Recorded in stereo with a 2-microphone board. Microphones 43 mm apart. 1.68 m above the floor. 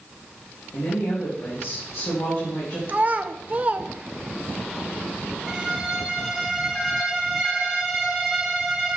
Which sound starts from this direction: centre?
A violin, at 5.5 s.